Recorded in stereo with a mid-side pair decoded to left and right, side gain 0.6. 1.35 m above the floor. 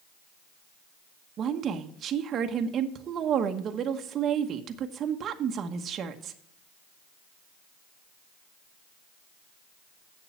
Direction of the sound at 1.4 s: 45° right.